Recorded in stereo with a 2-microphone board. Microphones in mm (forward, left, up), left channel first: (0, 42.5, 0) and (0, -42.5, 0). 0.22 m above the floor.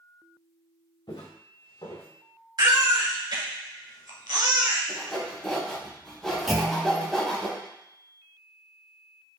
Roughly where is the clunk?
Centre.